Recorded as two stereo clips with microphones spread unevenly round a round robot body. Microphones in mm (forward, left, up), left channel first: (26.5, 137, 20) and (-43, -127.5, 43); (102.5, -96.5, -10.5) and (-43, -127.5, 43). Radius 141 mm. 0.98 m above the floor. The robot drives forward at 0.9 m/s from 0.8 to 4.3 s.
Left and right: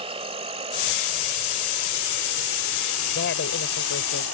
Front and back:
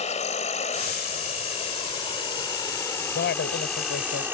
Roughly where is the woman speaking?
Ahead left.